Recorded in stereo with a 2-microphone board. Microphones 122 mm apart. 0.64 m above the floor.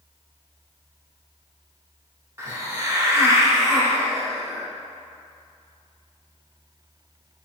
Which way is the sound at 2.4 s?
25° right (ahead or behind).